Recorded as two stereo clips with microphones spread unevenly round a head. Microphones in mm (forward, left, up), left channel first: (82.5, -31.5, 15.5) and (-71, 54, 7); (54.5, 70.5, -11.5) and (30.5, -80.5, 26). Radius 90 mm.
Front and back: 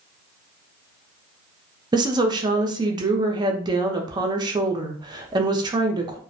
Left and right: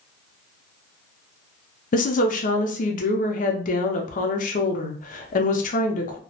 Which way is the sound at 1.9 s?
90° left.